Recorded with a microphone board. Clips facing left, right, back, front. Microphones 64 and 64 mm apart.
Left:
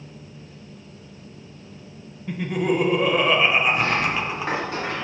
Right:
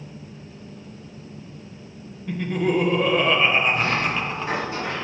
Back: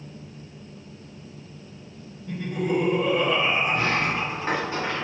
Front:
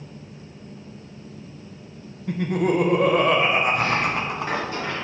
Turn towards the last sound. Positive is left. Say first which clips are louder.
# left 1 dB, front 2 dB
turn(degrees=125)